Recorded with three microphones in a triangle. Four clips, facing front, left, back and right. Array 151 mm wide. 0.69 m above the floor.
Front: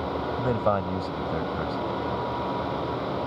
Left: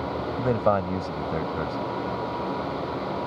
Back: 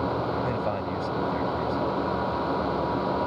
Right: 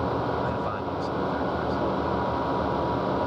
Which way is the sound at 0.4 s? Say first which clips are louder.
Left 5 dB, front 3 dB; 65° left.